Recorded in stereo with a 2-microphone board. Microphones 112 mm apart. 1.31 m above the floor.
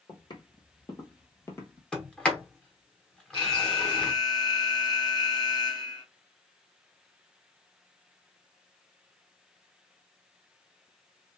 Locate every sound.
0.1 s footsteps: 45° left (ahead or behind), 1.8 m; by 1.8 s 20° left (ahead or behind), 1.4 m
1.9 s a sliding door: 10° left (ahead or behind), 1.1 m
3.3 s an alarm: 40° left (ahead or behind), 1.0 m